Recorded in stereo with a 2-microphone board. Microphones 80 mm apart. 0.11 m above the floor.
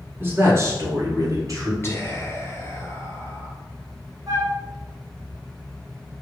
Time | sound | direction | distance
0.2 | a man speaking | 30° right (ahead or behind) | 1.2 m
1.8 | whispering | 30° left (ahead or behind) | 1.4 m
4.3 | a flute | 45° right (ahead or behind) | 1.6 m